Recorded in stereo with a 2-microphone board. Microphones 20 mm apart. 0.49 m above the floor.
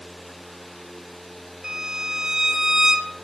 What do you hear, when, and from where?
1.6 s a violin: 25° right (ahead or behind), 1.2 m